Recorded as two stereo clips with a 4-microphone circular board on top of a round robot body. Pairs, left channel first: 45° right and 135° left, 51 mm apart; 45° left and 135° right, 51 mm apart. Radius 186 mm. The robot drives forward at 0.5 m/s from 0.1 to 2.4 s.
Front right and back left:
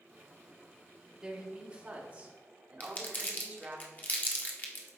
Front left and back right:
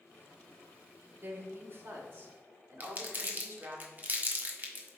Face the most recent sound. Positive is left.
turn(degrees=-90)